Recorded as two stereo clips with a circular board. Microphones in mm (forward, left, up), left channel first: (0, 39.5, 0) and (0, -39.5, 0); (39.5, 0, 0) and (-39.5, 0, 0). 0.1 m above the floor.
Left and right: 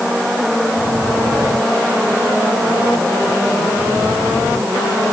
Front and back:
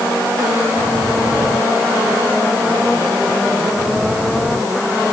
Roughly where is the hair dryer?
I don't hear a hair dryer.